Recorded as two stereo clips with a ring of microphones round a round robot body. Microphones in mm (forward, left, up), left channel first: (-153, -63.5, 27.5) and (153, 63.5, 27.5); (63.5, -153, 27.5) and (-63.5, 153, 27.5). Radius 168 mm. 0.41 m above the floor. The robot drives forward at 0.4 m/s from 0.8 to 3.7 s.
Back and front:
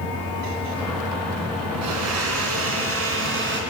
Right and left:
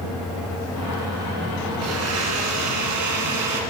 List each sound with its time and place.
1.8 s a blender: 65° left, 2.5 m; by 3.6 s 80° left, 2.5 m